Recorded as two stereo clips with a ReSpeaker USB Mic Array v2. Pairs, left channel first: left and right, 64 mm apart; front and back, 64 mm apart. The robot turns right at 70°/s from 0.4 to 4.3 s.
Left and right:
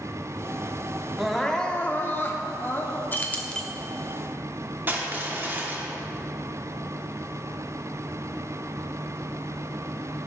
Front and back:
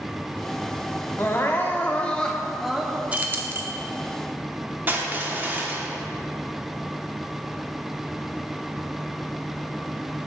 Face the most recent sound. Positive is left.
turn(degrees=-130)